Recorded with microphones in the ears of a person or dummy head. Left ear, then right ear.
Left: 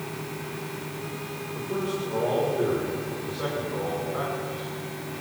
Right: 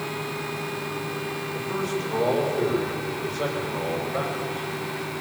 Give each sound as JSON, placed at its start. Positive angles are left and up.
{"t": 1.5, "sound": "a man speaking", "side_deg": -25, "distance_m": 7.5}